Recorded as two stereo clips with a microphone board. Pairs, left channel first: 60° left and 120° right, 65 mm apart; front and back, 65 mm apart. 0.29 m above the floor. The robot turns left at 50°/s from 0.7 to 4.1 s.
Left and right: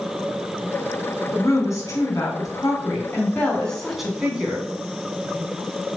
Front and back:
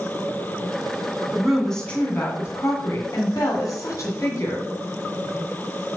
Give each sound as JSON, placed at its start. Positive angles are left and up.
{"t": 1.3, "sound": "a woman speaking", "azimuth_deg": 100, "distance_m": 2.5}